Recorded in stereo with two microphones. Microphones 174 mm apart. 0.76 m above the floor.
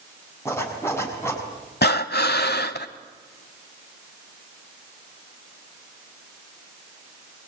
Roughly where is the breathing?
Left.